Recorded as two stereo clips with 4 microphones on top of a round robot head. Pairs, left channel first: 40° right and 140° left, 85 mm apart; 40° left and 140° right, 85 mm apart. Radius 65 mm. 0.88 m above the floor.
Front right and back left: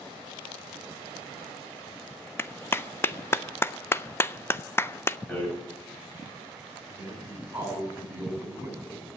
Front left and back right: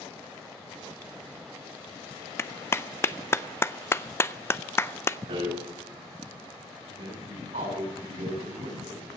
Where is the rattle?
120° right, 7 m.